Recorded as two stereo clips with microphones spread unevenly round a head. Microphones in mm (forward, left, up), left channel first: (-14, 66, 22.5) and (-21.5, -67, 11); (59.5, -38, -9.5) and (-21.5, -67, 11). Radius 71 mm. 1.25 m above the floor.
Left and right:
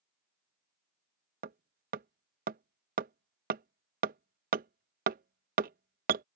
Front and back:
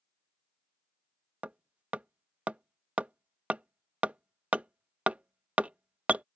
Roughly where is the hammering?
Right.